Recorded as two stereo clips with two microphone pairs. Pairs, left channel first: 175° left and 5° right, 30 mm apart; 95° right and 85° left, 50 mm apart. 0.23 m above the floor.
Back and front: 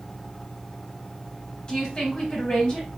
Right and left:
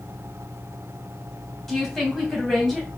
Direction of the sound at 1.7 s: 170° right.